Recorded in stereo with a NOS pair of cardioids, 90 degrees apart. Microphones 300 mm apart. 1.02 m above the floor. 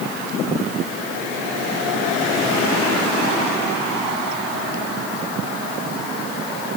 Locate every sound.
Only background noise.